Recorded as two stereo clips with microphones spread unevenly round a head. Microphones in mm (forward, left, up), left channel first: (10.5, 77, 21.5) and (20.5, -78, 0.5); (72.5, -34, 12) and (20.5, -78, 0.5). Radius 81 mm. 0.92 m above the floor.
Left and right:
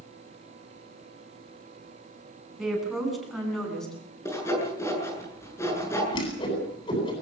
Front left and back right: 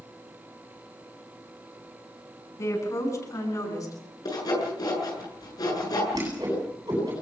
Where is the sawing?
20° left, 8 m.